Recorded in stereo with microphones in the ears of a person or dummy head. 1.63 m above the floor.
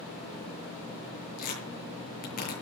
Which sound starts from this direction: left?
Tearing paper, at 1.4 s.